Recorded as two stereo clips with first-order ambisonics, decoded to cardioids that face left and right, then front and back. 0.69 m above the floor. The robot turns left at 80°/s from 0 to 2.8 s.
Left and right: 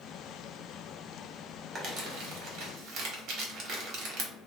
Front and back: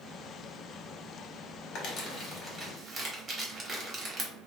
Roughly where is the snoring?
I don't hear snoring.